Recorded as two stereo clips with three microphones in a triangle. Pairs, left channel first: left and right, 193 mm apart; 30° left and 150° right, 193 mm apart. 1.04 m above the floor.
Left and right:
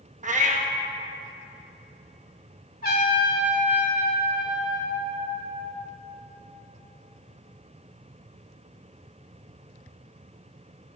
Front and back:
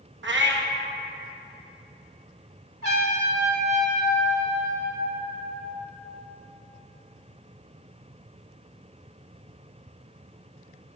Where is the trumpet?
50° left, 2 m.